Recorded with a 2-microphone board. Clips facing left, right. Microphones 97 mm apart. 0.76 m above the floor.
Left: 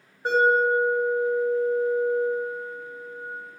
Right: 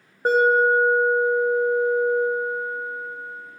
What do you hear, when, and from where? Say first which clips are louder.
0.2 s an alarm: right 3 dB; 40° right (ahead or behind), 0.9 m